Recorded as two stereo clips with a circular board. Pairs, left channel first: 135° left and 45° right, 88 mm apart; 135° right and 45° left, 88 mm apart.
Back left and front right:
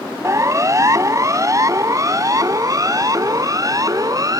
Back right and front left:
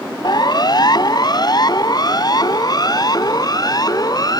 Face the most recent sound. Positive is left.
turn(degrees=-95)